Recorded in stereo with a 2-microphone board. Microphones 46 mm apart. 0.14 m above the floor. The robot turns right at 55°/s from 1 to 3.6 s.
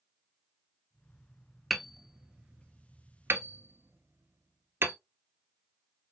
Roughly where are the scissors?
No scissors in this recording.